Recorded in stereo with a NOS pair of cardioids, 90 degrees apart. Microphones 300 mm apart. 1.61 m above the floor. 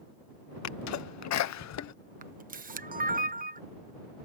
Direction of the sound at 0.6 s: 65° left.